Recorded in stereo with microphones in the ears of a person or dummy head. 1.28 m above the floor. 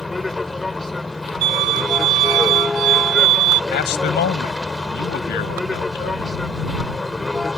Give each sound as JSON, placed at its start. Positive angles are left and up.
{"t": 0.0, "sound": "a vehicle", "side_deg": 0}
{"t": 1.4, "sound": "a violin", "side_deg": -55}
{"t": 3.7, "sound": "a man speaking", "side_deg": 45}